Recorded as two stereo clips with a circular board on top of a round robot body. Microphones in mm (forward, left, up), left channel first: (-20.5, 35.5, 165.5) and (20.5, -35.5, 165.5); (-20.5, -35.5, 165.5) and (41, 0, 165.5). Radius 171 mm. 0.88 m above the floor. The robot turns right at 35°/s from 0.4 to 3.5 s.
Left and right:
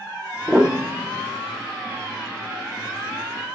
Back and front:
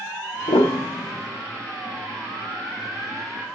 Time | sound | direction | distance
0.5 | a piano | 140° right | 0.5 m